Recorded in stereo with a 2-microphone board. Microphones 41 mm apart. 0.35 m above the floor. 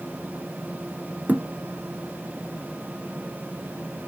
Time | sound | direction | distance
1.3 | a thud | 40° right (ahead or behind) | 1.5 m